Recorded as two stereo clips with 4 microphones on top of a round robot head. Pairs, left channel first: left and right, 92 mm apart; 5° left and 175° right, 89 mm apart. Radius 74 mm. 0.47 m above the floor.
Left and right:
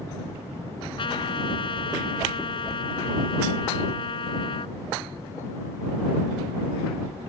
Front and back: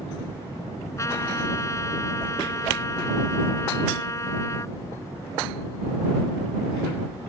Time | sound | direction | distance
1.0 | a trumpet | 65° left | ?